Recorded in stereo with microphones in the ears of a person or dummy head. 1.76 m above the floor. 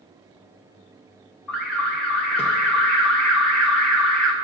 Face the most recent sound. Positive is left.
turn(degrees=5)  # may be behind; listen again after turning